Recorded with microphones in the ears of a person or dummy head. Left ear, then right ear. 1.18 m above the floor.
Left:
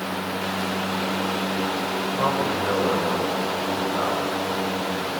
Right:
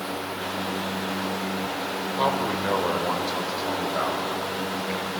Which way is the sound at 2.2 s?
35° right (ahead or behind).